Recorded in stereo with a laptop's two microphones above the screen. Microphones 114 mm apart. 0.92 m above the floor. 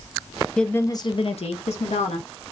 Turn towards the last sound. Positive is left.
turn(degrees=80)